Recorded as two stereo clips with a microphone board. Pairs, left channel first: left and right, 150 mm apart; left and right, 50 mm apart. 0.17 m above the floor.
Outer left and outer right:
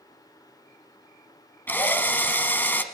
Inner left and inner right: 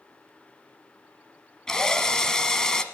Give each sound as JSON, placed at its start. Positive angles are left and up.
{"t": 1.7, "sound": "a drill", "side_deg": 15, "distance_m": 1.0}